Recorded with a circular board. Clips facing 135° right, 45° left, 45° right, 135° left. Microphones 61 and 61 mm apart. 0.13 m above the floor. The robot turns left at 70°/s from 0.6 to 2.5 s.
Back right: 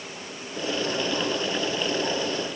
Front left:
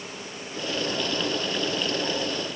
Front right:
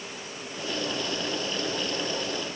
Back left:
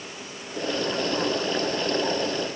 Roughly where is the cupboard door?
I don't hear a cupboard door.